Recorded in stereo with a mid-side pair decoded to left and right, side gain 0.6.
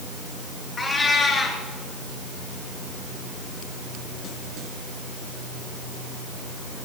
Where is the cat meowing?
25° left, 3 m.